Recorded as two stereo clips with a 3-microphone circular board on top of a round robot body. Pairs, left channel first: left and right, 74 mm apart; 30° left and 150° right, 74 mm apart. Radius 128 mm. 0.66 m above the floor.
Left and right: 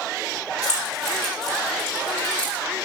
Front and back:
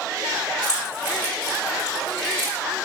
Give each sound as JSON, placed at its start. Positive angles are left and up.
{"t": 0.6, "sound": "keys jangling", "azimuth_deg": 55, "distance_m": 3.0}